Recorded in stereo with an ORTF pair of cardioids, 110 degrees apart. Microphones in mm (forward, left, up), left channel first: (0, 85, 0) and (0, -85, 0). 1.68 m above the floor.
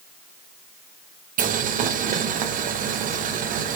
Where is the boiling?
50° right, 0.6 m.